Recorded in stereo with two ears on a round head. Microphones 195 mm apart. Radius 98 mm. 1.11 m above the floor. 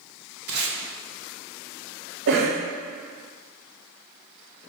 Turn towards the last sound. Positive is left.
turn(degrees=-55)  # may be behind; listen again after turning